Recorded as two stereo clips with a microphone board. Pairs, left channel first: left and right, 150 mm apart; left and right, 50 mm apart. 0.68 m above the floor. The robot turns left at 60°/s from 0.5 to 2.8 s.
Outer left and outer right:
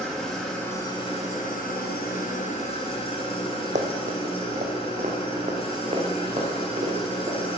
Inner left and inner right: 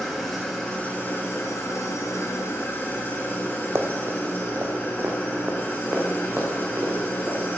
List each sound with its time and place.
0.0 s an engine running: straight behind, 2.5 m; by 7.6 s 40° left, 2.5 m
3.8 s running footsteps: 55° right (ahead or behind), 1.1 m; by 7.6 s 45° right (ahead or behind), 3.5 m